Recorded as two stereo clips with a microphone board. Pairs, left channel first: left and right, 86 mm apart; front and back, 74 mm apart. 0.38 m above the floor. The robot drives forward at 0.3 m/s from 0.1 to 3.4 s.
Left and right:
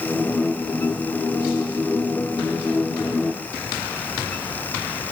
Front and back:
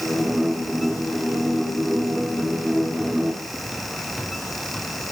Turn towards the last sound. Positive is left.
No sound to turn to.